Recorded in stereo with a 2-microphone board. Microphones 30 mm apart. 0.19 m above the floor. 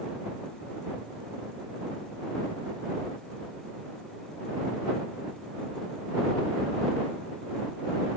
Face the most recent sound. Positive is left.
No sound to turn to.